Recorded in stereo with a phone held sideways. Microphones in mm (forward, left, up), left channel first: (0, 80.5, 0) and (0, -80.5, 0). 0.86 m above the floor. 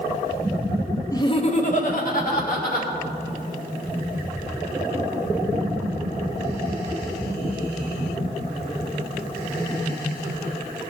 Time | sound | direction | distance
1.1 | laughter | 20° left (ahead or behind) | 0.8 m